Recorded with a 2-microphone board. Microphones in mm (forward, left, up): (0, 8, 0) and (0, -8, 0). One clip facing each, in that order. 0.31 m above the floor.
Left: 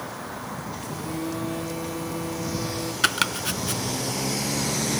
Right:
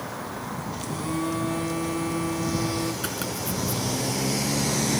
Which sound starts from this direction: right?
A phone buzzing, at 0.8 s.